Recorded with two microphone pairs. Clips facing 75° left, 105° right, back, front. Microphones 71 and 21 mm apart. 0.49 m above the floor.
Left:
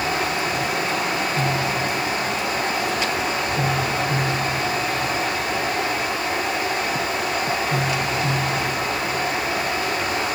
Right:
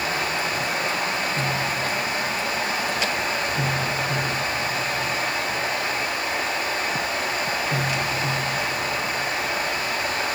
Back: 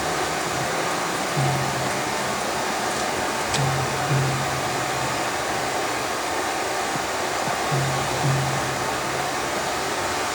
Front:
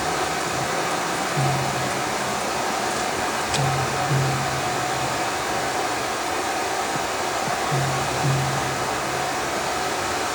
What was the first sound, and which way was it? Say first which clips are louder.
Running water: left 2 dB, even; 90° left.